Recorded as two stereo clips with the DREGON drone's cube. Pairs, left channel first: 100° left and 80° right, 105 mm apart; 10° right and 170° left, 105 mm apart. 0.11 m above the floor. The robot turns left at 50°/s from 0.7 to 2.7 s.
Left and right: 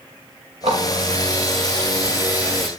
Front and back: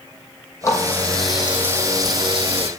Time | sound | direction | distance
0.6 | a running tap | 70° right | 4.5 m